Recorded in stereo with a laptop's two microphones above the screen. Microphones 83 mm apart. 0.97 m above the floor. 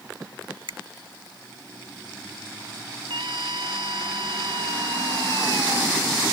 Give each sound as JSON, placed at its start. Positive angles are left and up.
{"t": 0.7, "sound": "a finger snap", "side_deg": -85}
{"t": 3.1, "sound": "a scream", "side_deg": -70}